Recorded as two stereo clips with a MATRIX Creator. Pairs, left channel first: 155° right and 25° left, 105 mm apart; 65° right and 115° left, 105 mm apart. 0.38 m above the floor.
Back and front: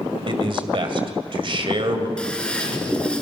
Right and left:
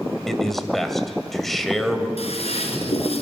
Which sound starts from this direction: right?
A toilet flushing, at 2.2 s.